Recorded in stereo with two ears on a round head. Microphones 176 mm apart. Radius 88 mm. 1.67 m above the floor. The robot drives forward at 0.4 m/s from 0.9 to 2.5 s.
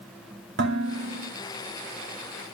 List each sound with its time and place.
0.6 s dishes clattering: 60° right (ahead or behind), 2.5 m; by 1.3 s 65° right (ahead or behind), 2.5 m